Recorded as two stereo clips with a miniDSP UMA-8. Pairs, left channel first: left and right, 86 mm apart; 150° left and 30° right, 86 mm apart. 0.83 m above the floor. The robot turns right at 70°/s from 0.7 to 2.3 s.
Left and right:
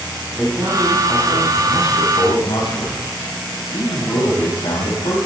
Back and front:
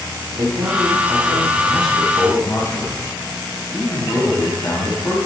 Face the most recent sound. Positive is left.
turn(degrees=90)